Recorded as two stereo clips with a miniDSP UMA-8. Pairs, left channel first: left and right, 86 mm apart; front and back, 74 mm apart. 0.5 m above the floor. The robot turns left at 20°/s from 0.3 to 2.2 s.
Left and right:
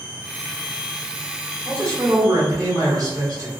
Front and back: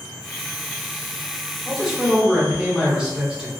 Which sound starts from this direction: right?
A man speaking, at 1.6 s.